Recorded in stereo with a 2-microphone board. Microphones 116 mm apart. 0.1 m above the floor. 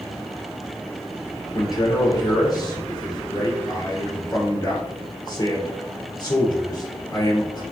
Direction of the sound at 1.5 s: 40° left (ahead or behind).